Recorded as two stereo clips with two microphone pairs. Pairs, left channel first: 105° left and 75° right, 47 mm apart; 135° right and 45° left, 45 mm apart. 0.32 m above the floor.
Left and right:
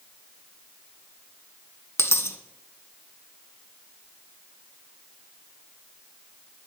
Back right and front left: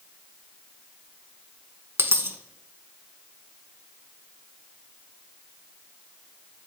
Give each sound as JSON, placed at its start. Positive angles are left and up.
{"t": 2.0, "sound": "a dropped coin", "azimuth_deg": 80, "distance_m": 0.7}